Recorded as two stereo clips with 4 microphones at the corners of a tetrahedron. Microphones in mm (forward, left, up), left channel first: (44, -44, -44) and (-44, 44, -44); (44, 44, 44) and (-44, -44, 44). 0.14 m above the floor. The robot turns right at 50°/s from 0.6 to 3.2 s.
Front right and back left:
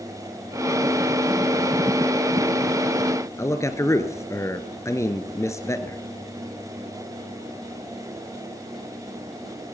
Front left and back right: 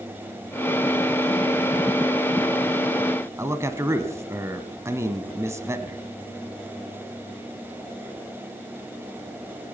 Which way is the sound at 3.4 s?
85° right.